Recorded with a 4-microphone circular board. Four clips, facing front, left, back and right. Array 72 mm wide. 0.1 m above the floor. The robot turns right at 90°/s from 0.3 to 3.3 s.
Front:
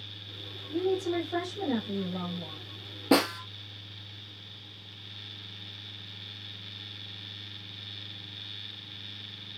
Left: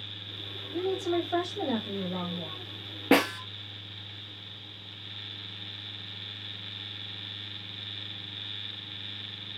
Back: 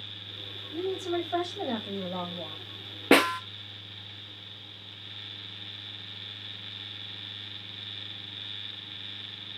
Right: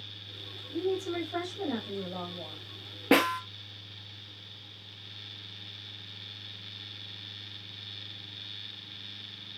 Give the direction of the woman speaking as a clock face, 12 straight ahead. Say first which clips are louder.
Left 2 dB, front 2 dB; 11 o'clock.